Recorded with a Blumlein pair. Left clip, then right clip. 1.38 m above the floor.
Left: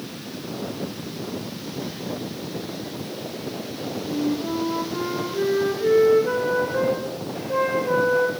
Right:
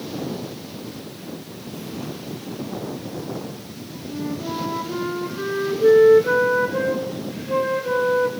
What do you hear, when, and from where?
4.1 s a flute: 25° right, 2 m